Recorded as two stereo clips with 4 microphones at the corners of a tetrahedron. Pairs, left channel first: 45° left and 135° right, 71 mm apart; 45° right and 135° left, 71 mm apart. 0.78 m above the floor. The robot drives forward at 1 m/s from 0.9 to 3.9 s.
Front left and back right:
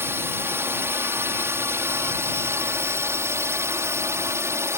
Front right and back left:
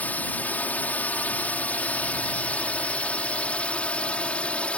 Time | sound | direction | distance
0.0 | a drone | 100° right | ?